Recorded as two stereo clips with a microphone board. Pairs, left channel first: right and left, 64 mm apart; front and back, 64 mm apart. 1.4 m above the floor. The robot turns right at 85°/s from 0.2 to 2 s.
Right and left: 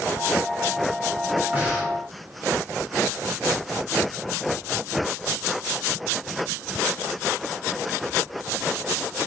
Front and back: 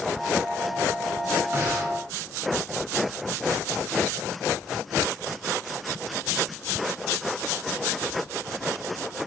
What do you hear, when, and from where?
1.5 s breathing: 150° left, 1.2 m; by 1.9 s 175° right, 1.2 m